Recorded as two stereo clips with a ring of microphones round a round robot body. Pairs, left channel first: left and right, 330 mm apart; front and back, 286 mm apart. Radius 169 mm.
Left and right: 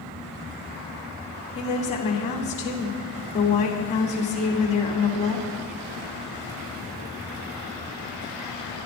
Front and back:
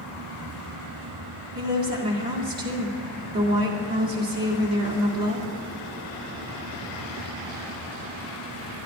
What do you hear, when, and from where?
1.6 s a woman speaking: 160° left, 2 m